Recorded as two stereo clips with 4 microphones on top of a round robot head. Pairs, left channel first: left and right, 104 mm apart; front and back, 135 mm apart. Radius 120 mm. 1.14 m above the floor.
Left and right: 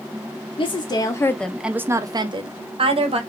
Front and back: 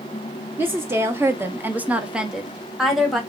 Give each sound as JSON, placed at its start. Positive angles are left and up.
{"t": 0.6, "sound": "a woman speaking", "azimuth_deg": 105, "distance_m": 0.7}